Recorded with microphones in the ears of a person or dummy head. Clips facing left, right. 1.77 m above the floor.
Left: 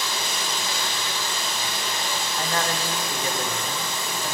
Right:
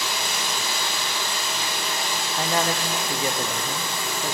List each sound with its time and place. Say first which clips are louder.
0.0 s running water: right 1 dB; 10° right (ahead or behind), 2.5 m
2.4 s a man speaking: right 3 dB; 20° right (ahead or behind), 0.6 m